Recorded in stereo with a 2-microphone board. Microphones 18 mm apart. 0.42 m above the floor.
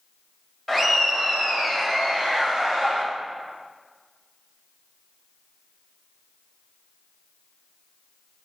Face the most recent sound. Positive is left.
turn(degrees=-30)  # may be behind; listen again after turning